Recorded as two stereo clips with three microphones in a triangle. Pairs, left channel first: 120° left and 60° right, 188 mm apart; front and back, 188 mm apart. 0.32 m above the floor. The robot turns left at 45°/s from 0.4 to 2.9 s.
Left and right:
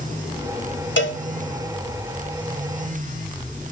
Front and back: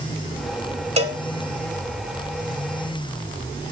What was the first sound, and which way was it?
A cowbell, 130° left.